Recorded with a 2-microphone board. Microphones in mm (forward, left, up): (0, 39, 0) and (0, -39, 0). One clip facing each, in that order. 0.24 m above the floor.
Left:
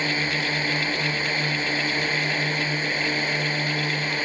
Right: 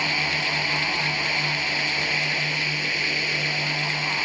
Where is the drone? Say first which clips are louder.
Left 1 dB; 35° left (ahead or behind); by 4.3 s 40° left (ahead or behind).